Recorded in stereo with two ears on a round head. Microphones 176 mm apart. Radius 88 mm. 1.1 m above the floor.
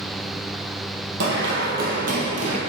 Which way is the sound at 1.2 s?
60° right (ahead or behind).